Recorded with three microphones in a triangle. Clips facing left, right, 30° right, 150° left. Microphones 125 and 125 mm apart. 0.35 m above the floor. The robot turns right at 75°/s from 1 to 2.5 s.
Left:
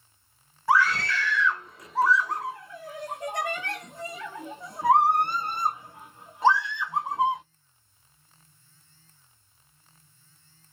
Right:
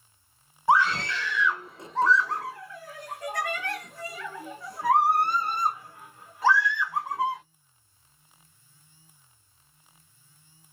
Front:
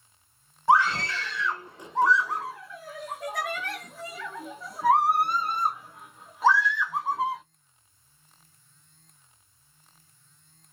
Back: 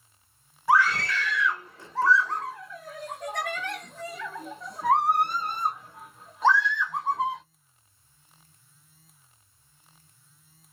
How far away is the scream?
About 1.0 m.